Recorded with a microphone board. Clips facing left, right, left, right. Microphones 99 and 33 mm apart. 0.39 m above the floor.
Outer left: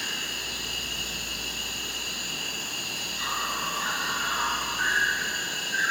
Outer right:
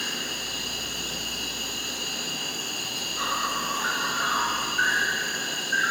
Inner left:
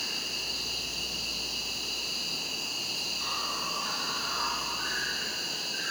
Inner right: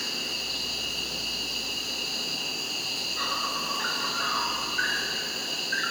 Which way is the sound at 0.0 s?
75° right (ahead or behind).